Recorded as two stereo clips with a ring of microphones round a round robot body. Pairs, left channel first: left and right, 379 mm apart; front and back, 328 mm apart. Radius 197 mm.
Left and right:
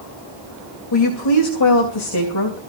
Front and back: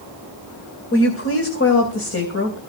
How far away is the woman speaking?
About 2.5 m.